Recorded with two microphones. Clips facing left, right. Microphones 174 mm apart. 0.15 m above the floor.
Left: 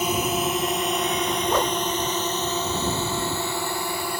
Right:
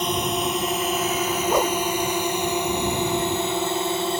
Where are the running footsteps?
I don't hear running footsteps.